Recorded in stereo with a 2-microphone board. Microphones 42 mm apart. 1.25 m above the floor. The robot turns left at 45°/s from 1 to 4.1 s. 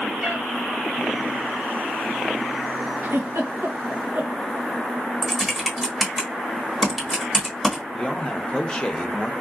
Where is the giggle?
70° right (ahead or behind), 0.9 m; by 4.4 s 60° right (ahead or behind), 0.9 m.